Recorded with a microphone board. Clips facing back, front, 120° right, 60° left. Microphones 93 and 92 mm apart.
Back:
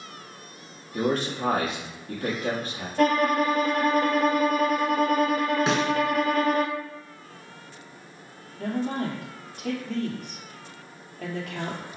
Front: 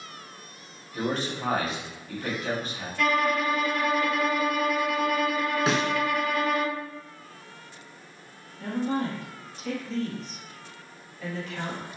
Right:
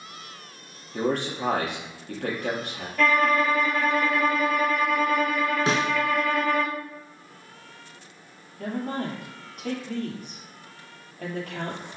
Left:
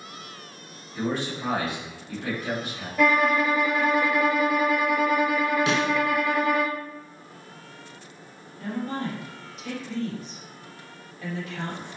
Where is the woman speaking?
150° right, 3 m.